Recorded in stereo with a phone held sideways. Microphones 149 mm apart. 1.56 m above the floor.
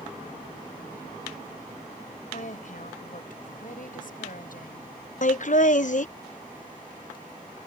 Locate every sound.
2.3 s a woman speaking: 60° left (ahead or behind); by 4.9 s 65° left (ahead or behind)
5.2 s laughter: 55° left (ahead or behind)